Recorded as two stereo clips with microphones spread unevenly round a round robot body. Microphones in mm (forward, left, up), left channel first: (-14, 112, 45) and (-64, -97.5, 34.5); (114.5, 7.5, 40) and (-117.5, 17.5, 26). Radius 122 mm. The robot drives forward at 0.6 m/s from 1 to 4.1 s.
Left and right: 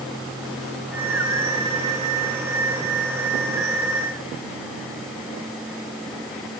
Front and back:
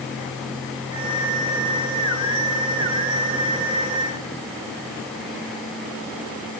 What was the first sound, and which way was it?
Only background noise.